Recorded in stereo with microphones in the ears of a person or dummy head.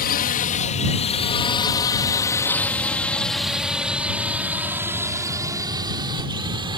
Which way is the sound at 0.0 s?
45° left (ahead or behind).